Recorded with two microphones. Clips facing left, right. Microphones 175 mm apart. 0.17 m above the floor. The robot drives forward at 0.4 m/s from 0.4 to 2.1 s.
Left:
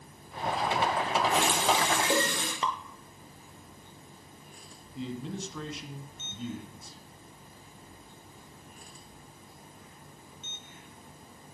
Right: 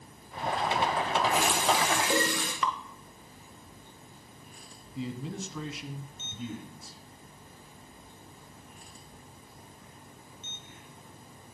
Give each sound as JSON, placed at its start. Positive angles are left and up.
{"t": 1.3, "sound": "a running tap", "side_deg": 25, "distance_m": 3.5}
{"t": 2.6, "sound": "dripping", "side_deg": 25, "distance_m": 0.8}
{"t": 5.0, "sound": "a man speaking", "side_deg": 0, "distance_m": 1.1}